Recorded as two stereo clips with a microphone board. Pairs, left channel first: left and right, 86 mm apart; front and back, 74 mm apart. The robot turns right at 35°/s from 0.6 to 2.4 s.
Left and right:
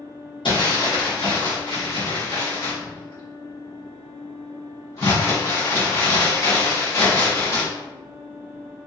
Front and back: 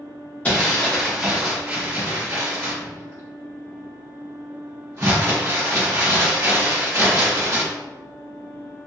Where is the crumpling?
70° left, 1.7 m; by 7.6 s 135° left, 1.7 m.